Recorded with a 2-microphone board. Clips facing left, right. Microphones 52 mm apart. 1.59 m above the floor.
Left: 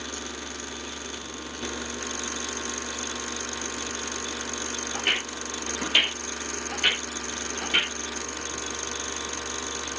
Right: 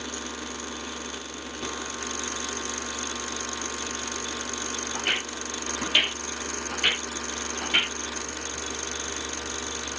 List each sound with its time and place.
4.9 s footsteps: 25° left (ahead or behind), 1.8 m; by 8.0 s 10° right (ahead or behind), 1.8 m